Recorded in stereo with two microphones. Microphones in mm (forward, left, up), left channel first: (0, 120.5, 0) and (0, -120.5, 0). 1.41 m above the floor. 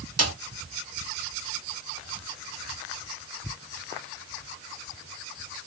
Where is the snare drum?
80° right, 1.9 m.